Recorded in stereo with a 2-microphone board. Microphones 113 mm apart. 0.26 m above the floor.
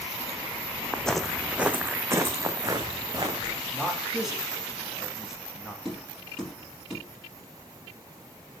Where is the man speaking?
5° right (ahead or behind), 2.5 m.